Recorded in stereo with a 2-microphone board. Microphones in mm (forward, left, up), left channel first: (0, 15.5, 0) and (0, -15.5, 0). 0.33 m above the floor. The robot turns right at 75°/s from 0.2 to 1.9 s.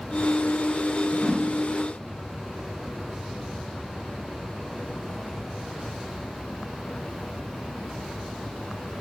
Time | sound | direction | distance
1.1 | a whoosh | 30° left (ahead or behind) | 1.2 m